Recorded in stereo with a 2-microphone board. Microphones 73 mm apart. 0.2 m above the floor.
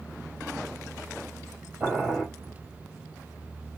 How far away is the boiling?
About 2.5 m.